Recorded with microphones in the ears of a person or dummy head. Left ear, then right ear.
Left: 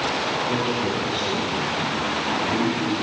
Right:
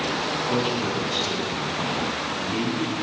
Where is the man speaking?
15° right (ahead or behind), 8 m.